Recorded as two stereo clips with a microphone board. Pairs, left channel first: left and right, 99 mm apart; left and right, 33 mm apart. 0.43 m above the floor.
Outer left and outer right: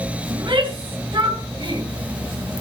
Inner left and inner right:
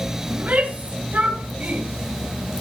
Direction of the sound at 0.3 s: 55° right (ahead or behind).